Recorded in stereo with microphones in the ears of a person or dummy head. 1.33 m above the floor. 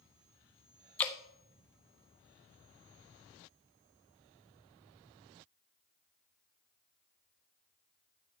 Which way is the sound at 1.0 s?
10° left (ahead or behind).